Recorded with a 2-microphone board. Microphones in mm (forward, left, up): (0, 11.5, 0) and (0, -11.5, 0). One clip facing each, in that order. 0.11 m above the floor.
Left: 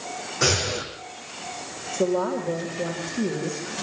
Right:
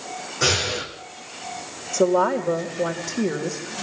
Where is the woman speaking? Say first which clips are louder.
Right 5 dB; 70° right (ahead or behind), 5 m.